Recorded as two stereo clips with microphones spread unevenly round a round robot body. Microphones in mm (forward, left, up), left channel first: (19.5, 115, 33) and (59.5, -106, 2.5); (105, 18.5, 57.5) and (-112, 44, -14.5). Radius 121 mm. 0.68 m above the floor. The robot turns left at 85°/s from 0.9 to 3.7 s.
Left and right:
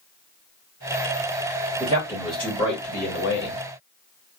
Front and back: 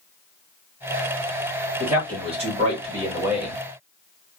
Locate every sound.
1.8 s a man speaking: 120° right, 1.6 m; by 3.6 s 85° left, 1.6 m